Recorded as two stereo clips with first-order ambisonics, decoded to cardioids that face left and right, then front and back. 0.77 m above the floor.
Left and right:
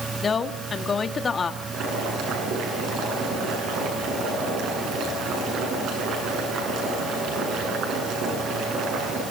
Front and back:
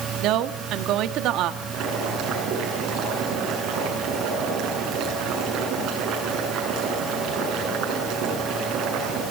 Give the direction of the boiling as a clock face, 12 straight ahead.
5 o'clock.